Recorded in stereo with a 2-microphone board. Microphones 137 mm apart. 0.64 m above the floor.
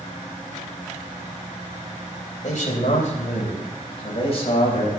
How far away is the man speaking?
About 2.5 m.